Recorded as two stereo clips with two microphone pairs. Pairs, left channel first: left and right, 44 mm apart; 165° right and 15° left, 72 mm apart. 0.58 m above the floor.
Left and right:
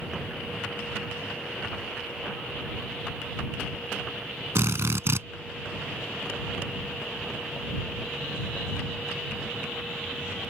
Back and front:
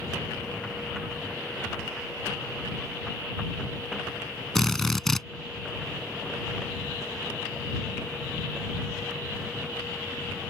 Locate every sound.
4.5 s a drill: 80° right